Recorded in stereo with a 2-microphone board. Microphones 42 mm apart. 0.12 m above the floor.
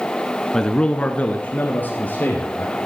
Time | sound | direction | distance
0.5 | a man speaking | 10° left (ahead or behind) | 1.3 m